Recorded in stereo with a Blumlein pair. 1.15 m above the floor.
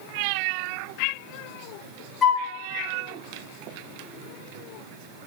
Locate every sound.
2.2 s a flute: 20° left, 1.2 m